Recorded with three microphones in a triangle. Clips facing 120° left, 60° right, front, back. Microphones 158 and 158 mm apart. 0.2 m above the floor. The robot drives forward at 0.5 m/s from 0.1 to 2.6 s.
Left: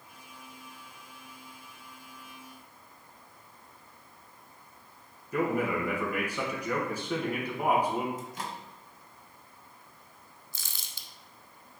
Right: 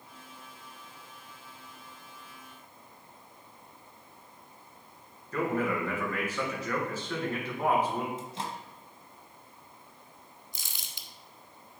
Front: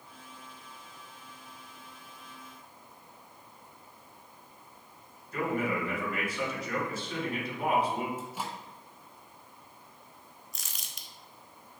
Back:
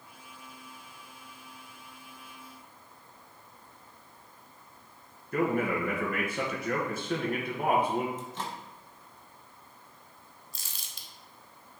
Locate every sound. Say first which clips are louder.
5.3 s a man speaking: left 1 dB, back 3 dB; 165° right, 2 m
8.2 s a microwave: right 1 dB, even; 70° right, 1.1 m
10.5 s crumpling: right 1 dB, front 1 dB; 130° right, 0.9 m